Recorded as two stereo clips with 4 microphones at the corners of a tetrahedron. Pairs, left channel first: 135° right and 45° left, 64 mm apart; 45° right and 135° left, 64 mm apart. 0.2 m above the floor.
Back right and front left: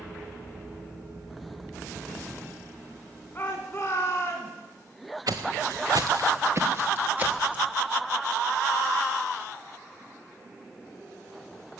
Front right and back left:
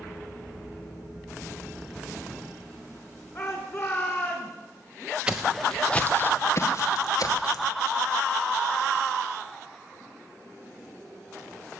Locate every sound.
3.4 s a shout: 80° right, 1.8 m; by 4.5 s 100° right, 2 m
5.3 s footsteps: 60° left, 1.2 m; by 7.7 s 25° right, 2 m